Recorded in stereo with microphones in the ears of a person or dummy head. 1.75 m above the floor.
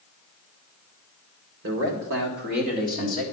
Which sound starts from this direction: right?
A man speaking, at 1.6 s.